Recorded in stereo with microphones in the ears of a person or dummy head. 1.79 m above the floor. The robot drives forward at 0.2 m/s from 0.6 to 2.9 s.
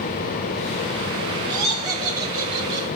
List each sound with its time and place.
1.5 s laughter: 30° left (ahead or behind), 3 m; by 2.9 s 25° left (ahead or behind), 3 m